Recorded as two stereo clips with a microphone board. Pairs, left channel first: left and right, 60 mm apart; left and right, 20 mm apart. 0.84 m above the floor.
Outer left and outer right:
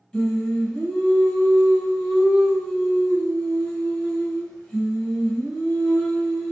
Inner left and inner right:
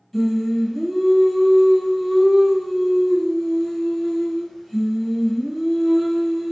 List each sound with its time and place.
0.1 s singing: 15° left (ahead or behind), 1.0 m